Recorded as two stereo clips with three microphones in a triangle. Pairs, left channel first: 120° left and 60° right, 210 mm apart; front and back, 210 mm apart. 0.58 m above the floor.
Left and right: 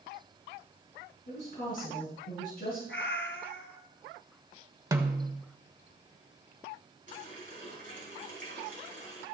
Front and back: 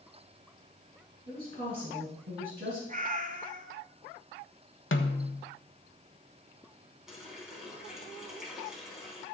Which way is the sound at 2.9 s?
135° left.